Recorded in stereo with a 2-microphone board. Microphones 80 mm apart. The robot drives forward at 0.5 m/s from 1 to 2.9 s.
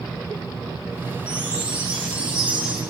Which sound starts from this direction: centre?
A chime, at 1.3 s.